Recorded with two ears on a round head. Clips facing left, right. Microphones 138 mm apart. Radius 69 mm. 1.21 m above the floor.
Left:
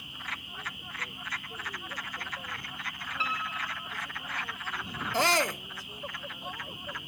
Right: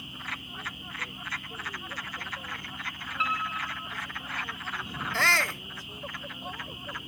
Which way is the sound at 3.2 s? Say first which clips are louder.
Right 3 dB; 30° left (ahead or behind).